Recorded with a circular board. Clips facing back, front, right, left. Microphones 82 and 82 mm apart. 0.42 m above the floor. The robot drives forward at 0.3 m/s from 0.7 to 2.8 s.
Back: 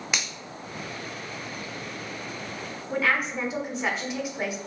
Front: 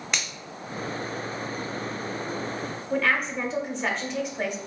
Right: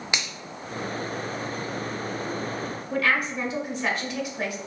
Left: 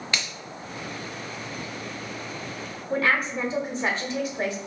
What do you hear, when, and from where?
0.1 s a finger snap: 105° right, 0.5 m
2.9 s a woman speaking: 100° left, 0.9 m